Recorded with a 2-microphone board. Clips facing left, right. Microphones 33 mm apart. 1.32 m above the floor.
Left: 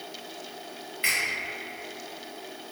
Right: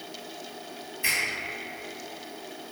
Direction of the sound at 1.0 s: 50° left (ahead or behind).